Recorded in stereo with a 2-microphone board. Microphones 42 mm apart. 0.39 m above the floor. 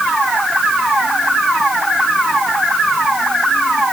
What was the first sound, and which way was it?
Only background noise.